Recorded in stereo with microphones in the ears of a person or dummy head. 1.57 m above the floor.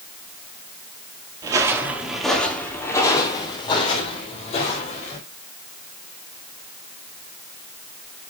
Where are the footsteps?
20° right (ahead or behind), 2 m; by 5.2 s 35° left (ahead or behind), 5 m.